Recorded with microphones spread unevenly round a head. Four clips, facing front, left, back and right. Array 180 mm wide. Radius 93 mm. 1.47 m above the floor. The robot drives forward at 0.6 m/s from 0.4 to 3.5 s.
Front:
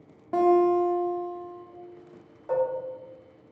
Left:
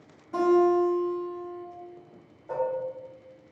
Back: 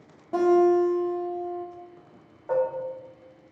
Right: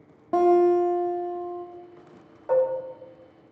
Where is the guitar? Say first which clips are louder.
Right 3 dB, back 1 dB; 85° right, 0.8 m; by 1.6 s 135° right, 1.0 m.